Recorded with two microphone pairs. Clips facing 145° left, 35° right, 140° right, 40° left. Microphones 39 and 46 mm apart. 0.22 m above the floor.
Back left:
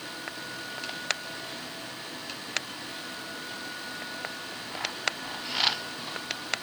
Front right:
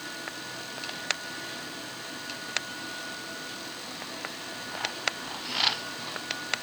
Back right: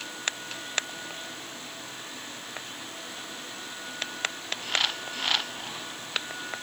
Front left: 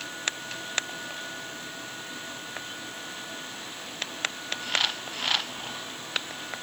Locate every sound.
Only background noise.